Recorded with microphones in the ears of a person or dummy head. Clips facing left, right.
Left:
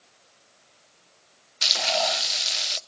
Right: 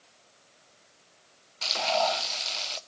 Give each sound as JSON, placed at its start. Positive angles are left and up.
{"t": 1.6, "sound": "frying", "side_deg": 25, "distance_m": 0.5}